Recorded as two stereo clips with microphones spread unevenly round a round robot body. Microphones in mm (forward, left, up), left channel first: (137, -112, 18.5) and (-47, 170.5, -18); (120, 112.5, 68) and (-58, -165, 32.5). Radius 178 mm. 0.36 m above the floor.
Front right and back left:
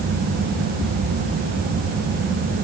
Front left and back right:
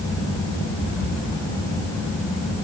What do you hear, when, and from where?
Only background noise.